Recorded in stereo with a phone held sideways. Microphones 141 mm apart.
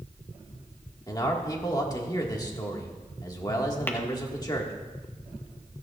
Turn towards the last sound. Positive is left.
turn(degrees=15)  # may be behind; listen again after turning